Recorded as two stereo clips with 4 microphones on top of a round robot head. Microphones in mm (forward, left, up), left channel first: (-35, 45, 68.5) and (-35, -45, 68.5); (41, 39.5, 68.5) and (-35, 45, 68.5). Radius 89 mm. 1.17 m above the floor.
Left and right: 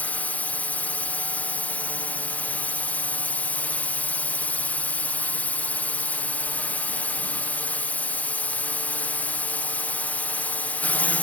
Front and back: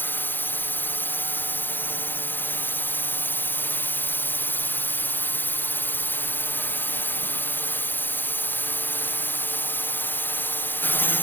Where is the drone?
30° left.